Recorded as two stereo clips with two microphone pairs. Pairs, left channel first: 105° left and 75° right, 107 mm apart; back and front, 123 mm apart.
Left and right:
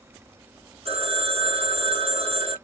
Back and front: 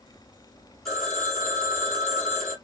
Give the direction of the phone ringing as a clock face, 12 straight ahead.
3 o'clock.